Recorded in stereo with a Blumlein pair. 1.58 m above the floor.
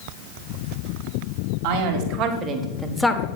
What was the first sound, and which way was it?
A man speaking, 50° right.